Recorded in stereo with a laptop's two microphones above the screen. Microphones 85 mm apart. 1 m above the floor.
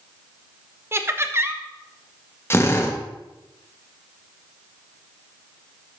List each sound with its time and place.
0.9 s laughter: 30° right (ahead or behind), 1.0 m
2.5 s a drill: 30° left (ahead or behind), 1.0 m